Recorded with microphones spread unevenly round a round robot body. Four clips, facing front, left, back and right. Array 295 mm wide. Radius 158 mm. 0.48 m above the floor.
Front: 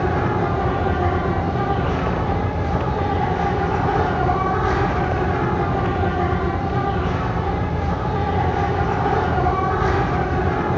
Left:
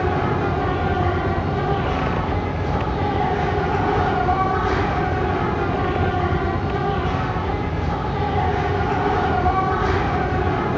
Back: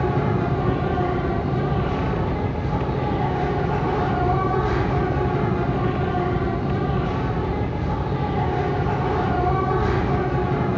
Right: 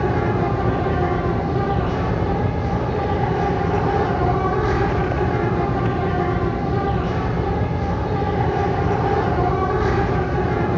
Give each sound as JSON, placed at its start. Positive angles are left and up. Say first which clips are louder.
{"t": 0.0, "sound": "an insect", "louder": "right 1 dB, front 2 dB", "azimuth_deg": -130, "distance_m": 5.0}